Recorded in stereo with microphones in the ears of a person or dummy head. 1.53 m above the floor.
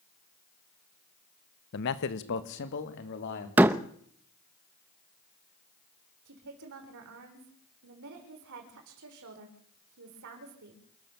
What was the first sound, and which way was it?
A man speaking, 65° left (ahead or behind).